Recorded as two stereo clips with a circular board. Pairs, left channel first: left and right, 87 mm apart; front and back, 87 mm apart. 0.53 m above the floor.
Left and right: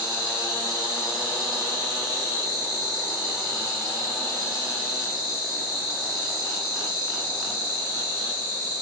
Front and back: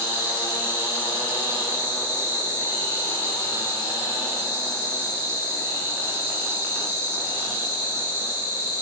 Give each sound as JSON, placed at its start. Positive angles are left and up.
{"t": 0.0, "sound": "an insect", "azimuth_deg": -125, "distance_m": 6.5}